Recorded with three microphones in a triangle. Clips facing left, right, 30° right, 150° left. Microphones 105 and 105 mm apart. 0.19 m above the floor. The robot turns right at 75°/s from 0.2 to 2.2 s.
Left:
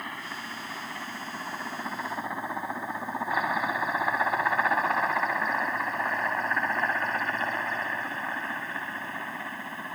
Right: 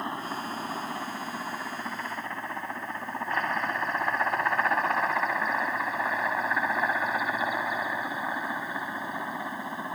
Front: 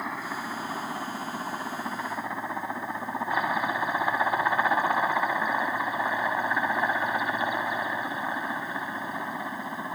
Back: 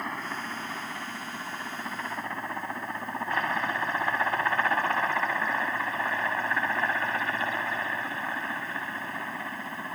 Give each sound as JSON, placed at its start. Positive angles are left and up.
{"t": 0.0, "sound": "a helicopter", "azimuth_deg": -110}